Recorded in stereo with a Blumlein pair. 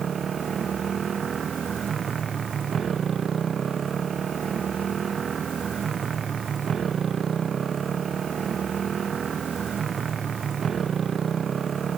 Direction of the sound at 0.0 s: 20° right.